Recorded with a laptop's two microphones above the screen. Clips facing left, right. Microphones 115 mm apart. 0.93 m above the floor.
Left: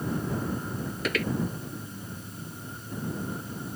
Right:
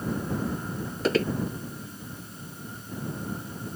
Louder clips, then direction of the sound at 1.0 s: Right 6 dB; 30° right (ahead or behind).